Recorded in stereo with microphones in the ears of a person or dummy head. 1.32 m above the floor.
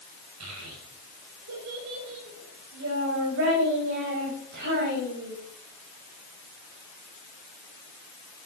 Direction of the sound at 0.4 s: 85° right.